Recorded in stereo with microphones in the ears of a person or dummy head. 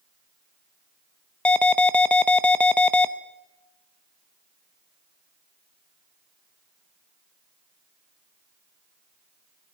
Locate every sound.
1.4 s an alarm: 5° left (ahead or behind), 0.8 m